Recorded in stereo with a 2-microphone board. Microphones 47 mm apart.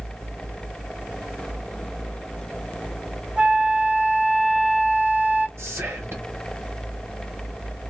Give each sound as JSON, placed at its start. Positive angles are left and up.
{"t": 3.4, "sound": "a flute", "side_deg": -20, "distance_m": 1.1}
{"t": 5.6, "sound": "whispering", "side_deg": -60, "distance_m": 0.8}